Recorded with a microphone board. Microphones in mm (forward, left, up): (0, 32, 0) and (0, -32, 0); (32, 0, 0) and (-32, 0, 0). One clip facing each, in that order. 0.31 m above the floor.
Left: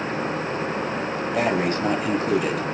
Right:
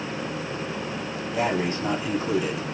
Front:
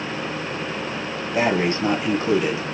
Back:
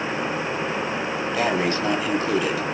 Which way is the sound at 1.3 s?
55° left.